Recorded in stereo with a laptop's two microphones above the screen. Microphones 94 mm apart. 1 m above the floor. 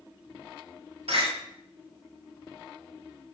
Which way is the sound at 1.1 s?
85° right.